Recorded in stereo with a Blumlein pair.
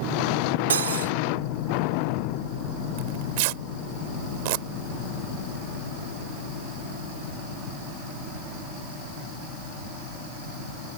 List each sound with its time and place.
0.7 s cutlery clinking: 65° right
3.0 s tearing paper: 50° right